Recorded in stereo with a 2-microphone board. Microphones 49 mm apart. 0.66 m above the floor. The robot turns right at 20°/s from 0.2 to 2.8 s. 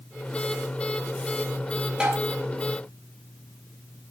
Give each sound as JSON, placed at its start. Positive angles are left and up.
{"t": 2.0, "sound": "tapping", "side_deg": -25, "distance_m": 4.5}